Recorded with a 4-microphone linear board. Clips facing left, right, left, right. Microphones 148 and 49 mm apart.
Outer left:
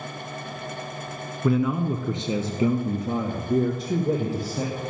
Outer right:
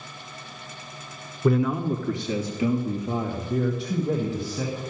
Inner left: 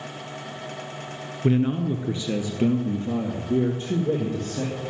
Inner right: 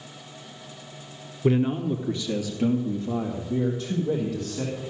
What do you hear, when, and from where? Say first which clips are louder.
1.4 s a man speaking: even, even; centre (ahead or behind), 1.2 m; by 4.8 s 45° left (ahead or behind), 4 m